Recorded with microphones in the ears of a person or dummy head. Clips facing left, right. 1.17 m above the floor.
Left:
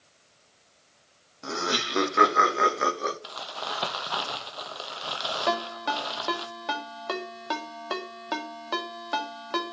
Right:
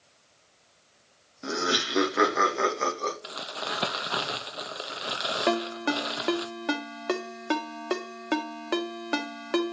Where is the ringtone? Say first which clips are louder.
Right 3 dB; 40° right (ahead or behind), 1.7 m.